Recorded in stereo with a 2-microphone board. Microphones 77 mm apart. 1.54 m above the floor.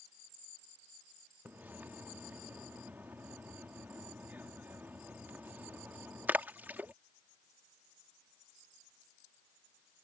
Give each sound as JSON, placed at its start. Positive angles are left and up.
{"t": 1.4, "sound": "a splash", "side_deg": -25}